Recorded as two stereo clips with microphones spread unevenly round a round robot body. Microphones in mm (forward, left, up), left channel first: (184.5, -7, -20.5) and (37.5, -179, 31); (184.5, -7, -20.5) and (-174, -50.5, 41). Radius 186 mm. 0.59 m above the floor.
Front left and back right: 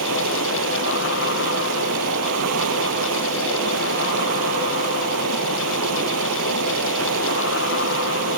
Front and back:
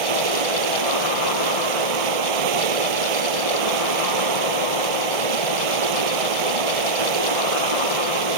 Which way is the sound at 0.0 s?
175° left.